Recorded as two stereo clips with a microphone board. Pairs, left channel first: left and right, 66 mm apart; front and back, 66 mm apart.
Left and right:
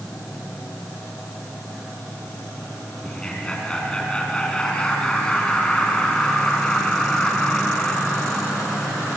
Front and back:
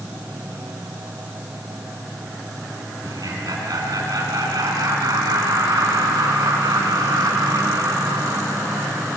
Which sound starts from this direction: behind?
Laughter, at 3.0 s.